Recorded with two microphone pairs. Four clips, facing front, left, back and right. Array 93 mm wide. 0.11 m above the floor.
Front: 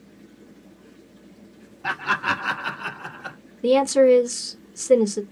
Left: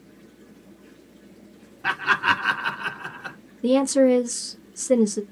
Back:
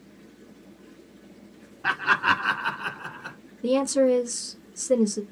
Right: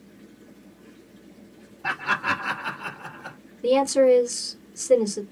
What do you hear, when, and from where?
1.8 s laughter: 140° left, 1.8 m; by 3.4 s 55° left, 1.9 m
3.6 s a woman speaking: 30° left, 1.7 m